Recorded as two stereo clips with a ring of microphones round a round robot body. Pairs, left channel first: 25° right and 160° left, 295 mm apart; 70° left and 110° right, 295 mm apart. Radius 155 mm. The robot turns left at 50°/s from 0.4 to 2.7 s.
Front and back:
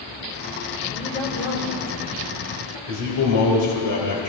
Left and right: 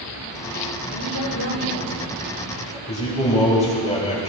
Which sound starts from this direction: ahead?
A man speaking, at 2.9 s.